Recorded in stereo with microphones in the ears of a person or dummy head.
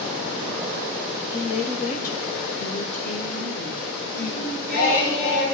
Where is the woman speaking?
30° left (ahead or behind), 0.6 m.